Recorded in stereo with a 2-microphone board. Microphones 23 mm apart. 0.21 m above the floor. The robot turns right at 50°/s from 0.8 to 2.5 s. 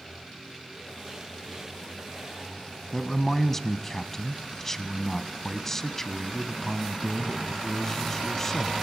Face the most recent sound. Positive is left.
turn(degrees=15)  # may be behind; listen again after turning